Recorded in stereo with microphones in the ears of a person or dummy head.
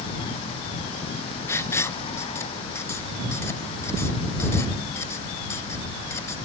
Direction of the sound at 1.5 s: 10° left (ahead or behind).